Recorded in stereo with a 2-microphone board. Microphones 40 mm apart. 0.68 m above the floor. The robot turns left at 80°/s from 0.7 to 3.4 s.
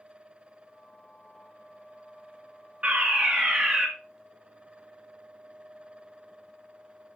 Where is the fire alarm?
110° right, 2 m; by 3.9 s 155° right, 2 m.